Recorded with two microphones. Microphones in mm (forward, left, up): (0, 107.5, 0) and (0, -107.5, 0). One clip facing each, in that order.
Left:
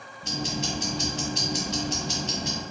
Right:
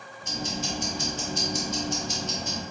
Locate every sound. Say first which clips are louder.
0.2 s ticking: left 2 dB; 70° left (ahead or behind), 0.6 m